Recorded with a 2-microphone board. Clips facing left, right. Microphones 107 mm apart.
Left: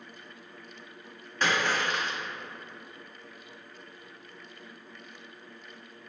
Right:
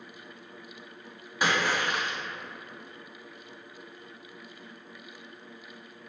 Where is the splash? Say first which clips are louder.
Right 1 dB; 10° right (ahead or behind), 0.7 m.